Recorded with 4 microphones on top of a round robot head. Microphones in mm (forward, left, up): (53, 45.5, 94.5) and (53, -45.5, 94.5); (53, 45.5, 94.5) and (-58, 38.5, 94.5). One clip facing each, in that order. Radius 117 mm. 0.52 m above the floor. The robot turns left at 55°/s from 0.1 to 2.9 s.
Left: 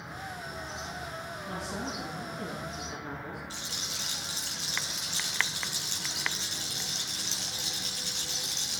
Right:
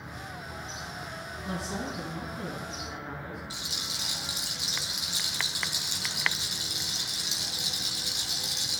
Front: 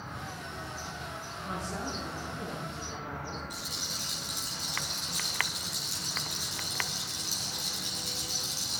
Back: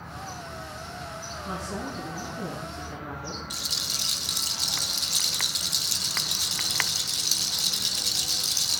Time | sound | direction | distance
1.4 | a woman speaking | 100° right | 6 m
3.5 | a rattle | 170° right | 1.4 m